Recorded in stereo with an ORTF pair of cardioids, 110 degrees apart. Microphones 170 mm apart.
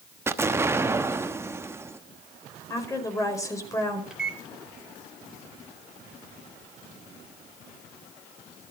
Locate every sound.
0.3 s an explosion: 15° right, 1.0 m
2.7 s a woman speaking: 20° left, 5 m
4.1 s a microwave: 5° right, 3.5 m